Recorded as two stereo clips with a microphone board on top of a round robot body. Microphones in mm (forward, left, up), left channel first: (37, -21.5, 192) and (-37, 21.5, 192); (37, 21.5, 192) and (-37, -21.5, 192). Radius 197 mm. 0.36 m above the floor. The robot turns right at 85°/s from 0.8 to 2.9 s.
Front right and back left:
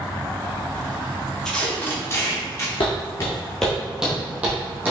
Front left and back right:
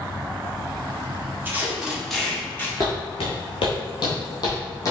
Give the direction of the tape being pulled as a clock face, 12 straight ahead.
4 o'clock.